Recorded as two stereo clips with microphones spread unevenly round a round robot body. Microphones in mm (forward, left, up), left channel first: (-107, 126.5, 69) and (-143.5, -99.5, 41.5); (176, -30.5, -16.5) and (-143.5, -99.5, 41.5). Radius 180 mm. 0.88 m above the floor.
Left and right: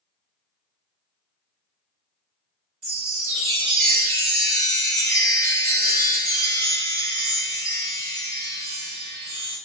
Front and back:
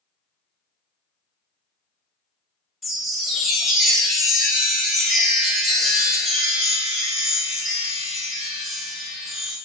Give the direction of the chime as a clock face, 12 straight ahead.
3 o'clock.